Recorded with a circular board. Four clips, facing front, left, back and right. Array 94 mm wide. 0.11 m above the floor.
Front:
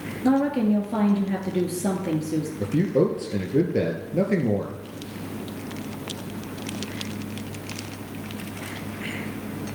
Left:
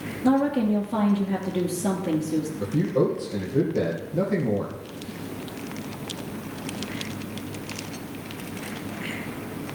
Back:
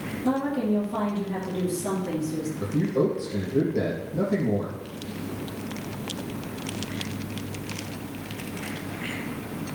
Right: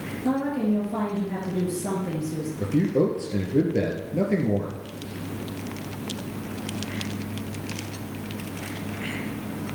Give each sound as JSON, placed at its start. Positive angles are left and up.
{"t": 0.2, "sound": "a woman speaking", "azimuth_deg": 20, "distance_m": 2.5}
{"t": 2.6, "sound": "a man speaking", "azimuth_deg": -25, "distance_m": 2.5}